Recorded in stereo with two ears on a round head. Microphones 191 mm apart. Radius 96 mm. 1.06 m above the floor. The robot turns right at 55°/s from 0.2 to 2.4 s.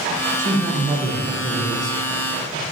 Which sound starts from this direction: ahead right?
A man speaking, at 0.4 s.